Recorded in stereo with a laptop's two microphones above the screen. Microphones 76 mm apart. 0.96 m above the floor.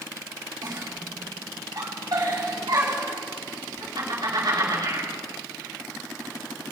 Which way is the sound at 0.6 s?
60° right (ahead or behind).